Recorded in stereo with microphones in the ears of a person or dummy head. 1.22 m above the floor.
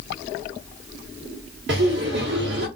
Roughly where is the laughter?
Right.